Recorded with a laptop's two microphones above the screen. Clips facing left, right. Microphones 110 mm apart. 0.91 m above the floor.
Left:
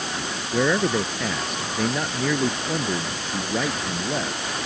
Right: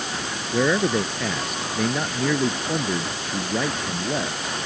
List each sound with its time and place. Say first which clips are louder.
0.5 s a man speaking: right 1 dB; centre (ahead or behind)